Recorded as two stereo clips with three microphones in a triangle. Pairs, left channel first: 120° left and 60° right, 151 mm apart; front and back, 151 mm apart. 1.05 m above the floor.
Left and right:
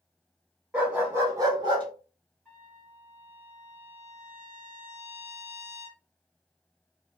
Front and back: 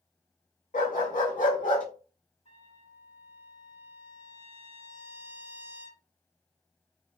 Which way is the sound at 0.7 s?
25° left.